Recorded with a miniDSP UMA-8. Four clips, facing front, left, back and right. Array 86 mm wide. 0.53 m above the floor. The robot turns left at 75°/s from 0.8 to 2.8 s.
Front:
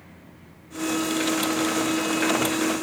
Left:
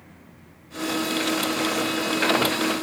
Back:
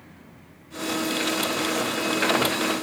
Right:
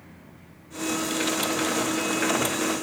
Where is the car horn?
No car horn in this recording.